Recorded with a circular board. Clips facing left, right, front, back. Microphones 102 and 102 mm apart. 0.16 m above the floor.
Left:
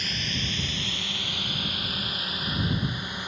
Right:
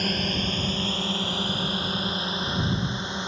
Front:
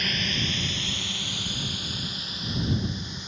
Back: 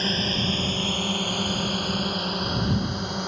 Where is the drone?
125° right; by 3.3 s 155° right.